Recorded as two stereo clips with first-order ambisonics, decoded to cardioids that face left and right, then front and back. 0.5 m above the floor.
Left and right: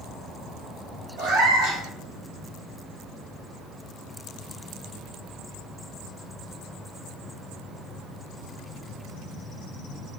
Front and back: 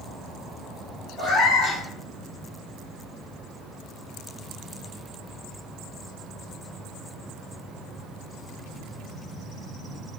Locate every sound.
1.2 s a cat meowing: 70° right, 1.3 m